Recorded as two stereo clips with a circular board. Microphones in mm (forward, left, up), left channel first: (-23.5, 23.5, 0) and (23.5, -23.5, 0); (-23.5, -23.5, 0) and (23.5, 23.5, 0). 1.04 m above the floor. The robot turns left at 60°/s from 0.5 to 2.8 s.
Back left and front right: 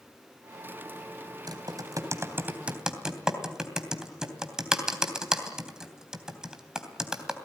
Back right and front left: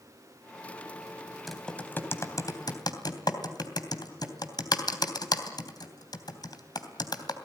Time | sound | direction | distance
1.5 | typing on a keyboard | 45° right | 3 m